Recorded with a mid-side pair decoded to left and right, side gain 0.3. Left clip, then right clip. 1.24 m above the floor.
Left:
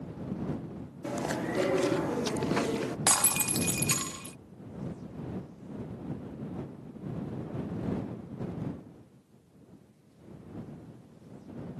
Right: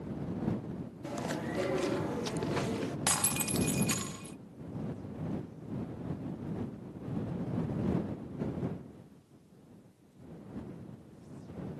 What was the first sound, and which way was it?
Chewing, 55° left.